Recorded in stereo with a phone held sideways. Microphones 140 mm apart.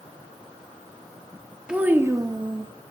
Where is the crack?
I don't hear a crack.